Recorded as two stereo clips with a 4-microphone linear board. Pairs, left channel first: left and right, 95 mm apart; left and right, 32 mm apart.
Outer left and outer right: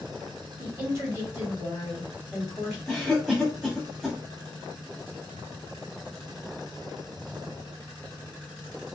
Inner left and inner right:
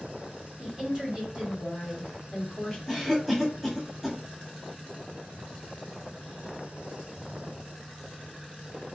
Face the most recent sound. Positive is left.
turn(degrees=5)  # may be behind; listen again after turning